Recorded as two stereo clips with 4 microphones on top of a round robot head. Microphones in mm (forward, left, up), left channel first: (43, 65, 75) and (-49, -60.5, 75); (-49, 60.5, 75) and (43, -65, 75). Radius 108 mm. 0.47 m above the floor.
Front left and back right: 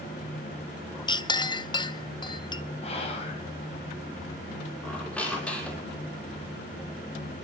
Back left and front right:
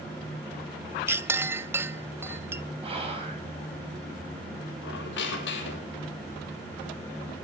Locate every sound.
1.1 s a clink: 15° left, 0.7 m
2.8 s whispering: straight ahead, 3.5 m
4.8 s a squeak: 135° left, 2.5 m